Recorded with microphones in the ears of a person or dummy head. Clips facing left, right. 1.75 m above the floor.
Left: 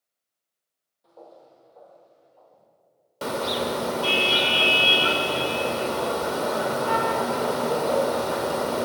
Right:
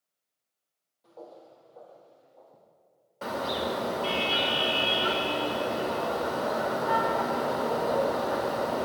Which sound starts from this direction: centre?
Footsteps, at 1.0 s.